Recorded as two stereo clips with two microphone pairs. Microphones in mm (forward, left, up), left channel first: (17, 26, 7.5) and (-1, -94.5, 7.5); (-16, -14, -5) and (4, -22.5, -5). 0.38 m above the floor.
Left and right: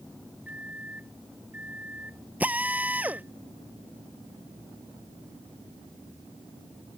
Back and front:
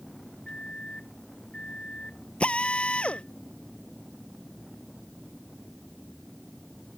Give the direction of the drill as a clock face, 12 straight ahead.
6 o'clock.